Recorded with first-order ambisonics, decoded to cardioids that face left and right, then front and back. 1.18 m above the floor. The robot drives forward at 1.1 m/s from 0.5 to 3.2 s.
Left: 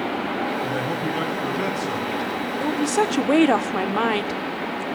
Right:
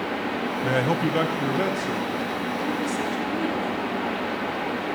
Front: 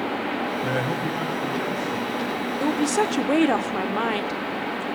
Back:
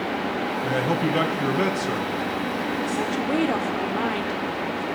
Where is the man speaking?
75° right, 0.7 m; by 2.1 s 165° right, 1.6 m.